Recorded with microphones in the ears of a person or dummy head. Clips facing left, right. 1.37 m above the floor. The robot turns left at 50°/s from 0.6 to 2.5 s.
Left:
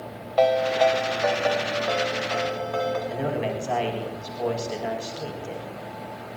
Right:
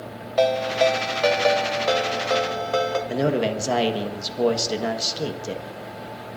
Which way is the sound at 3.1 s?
55° right (ahead or behind).